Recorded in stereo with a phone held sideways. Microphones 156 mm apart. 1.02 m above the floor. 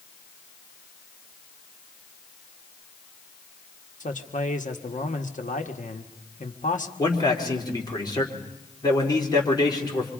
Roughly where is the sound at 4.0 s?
Left.